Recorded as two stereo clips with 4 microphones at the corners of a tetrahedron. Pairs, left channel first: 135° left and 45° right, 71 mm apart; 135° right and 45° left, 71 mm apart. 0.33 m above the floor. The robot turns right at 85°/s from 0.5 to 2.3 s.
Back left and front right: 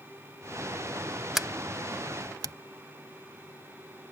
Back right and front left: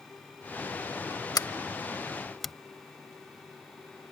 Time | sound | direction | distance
1.4 | a sliding door | 130° right | ?